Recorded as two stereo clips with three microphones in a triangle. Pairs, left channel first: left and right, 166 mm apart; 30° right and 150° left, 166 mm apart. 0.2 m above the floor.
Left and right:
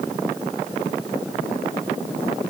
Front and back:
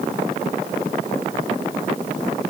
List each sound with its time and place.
Only background noise.